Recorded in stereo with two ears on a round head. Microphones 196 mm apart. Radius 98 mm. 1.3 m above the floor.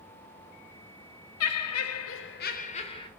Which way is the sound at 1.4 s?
75° left (ahead or behind).